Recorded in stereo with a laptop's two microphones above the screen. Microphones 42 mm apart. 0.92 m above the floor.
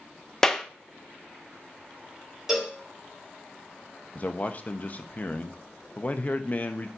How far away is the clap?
About 0.7 m.